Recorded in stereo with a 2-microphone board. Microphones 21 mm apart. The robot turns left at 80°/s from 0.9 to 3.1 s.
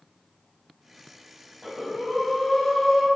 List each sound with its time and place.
1.6 s breathing: 160° right, 0.9 m; by 3.1 s 85° left, 0.9 m